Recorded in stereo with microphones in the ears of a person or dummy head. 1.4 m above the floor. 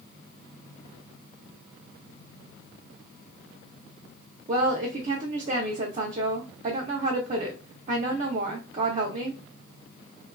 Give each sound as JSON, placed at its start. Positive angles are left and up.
{"t": 4.5, "sound": "a woman speaking", "side_deg": -40, "distance_m": 0.6}